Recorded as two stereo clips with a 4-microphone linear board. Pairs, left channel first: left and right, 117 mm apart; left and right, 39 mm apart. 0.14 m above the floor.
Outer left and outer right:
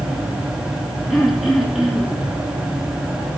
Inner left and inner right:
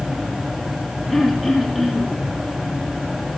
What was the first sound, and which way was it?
Throat clearing, centre (ahead or behind).